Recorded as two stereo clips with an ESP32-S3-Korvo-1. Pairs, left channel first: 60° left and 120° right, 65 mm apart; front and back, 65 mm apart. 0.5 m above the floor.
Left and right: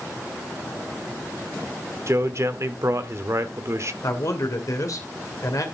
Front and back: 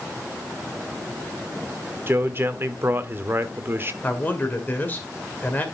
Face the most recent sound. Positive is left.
turn(degrees=60)